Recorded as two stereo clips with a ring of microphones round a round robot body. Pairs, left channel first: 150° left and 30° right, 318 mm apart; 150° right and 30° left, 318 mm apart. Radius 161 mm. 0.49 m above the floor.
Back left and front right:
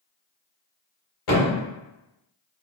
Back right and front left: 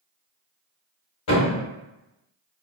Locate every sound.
1.3 s a thud: 170° left, 1.3 m